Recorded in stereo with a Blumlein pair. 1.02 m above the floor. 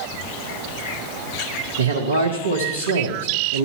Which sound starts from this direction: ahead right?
A man speaking, at 1.8 s.